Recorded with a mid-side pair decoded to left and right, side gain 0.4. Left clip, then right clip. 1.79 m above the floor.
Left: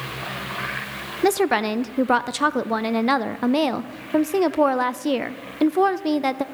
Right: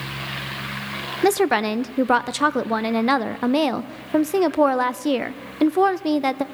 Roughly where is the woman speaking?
Ahead.